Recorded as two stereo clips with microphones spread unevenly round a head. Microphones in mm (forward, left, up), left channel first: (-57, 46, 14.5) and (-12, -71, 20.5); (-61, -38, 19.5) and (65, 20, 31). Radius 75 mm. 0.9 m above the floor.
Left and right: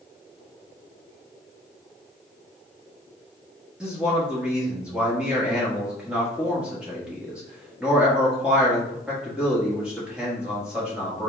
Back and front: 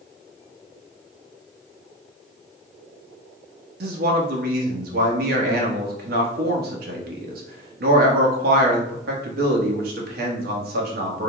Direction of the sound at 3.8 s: 15° left.